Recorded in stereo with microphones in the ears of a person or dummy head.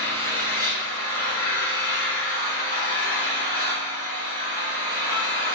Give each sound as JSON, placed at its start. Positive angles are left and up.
{"t": 0.0, "sound": "an engine running", "side_deg": 20, "distance_m": 3.0}